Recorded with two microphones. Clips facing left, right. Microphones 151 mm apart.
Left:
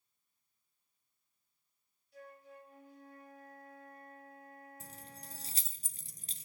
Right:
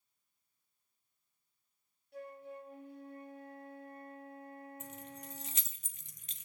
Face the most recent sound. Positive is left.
turn(degrees=35)  # may be behind; listen again after turning